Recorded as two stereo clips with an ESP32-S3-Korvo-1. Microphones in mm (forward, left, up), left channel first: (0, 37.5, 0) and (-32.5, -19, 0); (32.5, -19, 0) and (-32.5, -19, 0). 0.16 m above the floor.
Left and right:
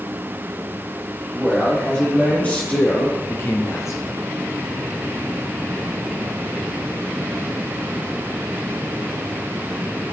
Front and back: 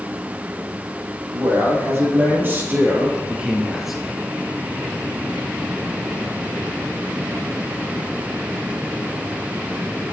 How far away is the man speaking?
About 5 m.